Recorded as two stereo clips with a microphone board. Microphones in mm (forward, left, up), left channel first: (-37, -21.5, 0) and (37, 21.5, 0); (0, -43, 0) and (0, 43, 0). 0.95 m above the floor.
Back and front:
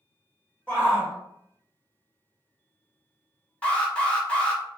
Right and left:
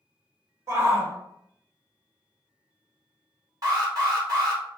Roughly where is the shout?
Behind left.